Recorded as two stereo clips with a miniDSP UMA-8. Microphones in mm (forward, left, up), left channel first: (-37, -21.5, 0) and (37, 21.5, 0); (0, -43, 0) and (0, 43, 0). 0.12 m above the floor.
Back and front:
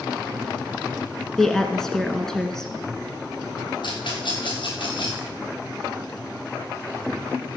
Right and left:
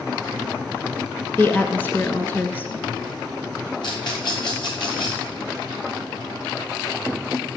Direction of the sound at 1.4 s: 75° right.